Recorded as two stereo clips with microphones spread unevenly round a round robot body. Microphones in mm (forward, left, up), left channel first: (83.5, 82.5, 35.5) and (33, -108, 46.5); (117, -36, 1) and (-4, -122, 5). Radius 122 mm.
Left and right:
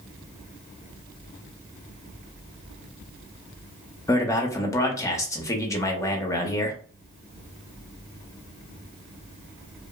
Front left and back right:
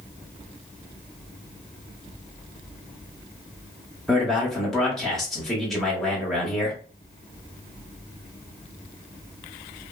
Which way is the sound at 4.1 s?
115° left.